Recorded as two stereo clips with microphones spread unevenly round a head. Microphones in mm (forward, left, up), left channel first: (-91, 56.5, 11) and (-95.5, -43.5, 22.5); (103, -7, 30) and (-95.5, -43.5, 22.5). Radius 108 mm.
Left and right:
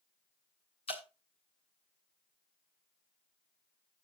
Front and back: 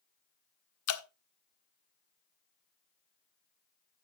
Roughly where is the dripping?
Ahead left.